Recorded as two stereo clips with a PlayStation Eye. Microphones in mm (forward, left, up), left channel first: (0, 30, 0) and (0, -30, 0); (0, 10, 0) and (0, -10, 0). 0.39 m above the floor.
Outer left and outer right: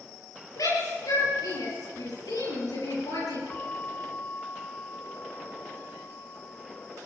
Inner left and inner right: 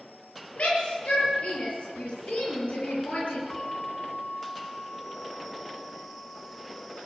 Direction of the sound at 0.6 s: 75° left (ahead or behind).